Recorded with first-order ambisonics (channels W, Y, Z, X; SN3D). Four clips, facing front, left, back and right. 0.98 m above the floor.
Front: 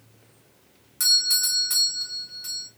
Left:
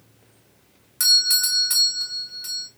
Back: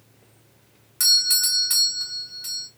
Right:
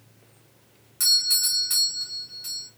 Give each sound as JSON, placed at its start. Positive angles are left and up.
{"t": 1.0, "sound": "a doorbell", "azimuth_deg": 130, "distance_m": 0.8}